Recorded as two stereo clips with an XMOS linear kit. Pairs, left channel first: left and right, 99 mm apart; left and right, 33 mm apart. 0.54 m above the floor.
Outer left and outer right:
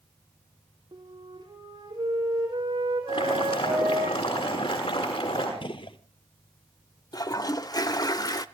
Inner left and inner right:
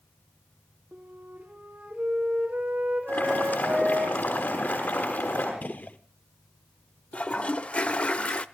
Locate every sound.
0.9 s a flute: 45° right (ahead or behind), 5.5 m
3.1 s boiling: 70° left (ahead or behind), 6.5 m
5.6 s a gunshot: 60° left (ahead or behind), 0.9 m
7.1 s a toilet flushing: 40° left (ahead or behind), 0.7 m